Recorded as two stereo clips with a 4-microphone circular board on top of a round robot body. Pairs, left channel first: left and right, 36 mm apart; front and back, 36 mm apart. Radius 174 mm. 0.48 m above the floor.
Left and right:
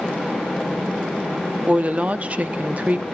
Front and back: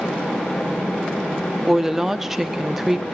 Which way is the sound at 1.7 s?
105° right.